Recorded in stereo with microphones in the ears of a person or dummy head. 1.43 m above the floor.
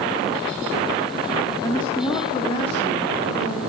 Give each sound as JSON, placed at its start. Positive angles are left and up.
{"t": 1.6, "sound": "a woman speaking", "side_deg": 20, "distance_m": 1.2}